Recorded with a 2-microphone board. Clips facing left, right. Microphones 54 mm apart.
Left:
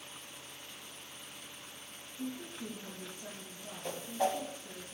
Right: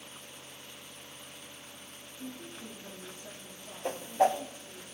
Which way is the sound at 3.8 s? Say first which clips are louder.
Right 6 dB; 45° right (ahead or behind).